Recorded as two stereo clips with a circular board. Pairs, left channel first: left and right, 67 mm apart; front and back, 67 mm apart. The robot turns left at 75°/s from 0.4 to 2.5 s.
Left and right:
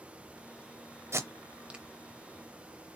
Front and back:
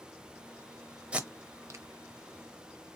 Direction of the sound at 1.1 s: 110° right.